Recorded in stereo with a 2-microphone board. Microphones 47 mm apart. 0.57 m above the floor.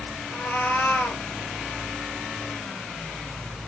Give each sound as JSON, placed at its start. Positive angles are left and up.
{"t": 0.3, "sound": "a cat meowing", "side_deg": 40, "distance_m": 1.1}